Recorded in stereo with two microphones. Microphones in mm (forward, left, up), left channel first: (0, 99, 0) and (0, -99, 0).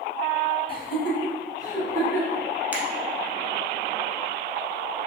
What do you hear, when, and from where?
0.7 s laughter: 30° left (ahead or behind), 1.3 m; by 2.4 s 10° left (ahead or behind), 1.4 m
2.7 s a finger snap: 10° right (ahead or behind), 0.8 m